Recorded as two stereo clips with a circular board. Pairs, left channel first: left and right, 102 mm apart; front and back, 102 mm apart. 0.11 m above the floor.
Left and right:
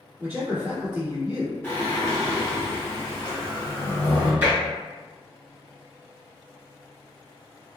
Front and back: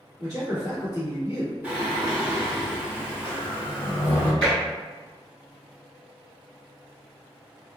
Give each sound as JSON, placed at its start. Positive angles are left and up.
{"t": 0.2, "sound": "a man speaking", "azimuth_deg": -145, "distance_m": 1.7}
{"t": 1.6, "sound": "singing", "azimuth_deg": 130, "distance_m": 1.2}
{"t": 4.4, "sound": "tapping", "azimuth_deg": -65, "distance_m": 1.2}